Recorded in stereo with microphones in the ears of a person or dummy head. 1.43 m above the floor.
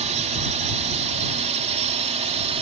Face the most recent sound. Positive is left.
turn(degrees=-30)  # may be behind; listen again after turning